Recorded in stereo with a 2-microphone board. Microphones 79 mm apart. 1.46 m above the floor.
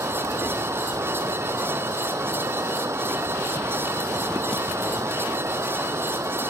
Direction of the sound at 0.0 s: 35° right (ahead or behind).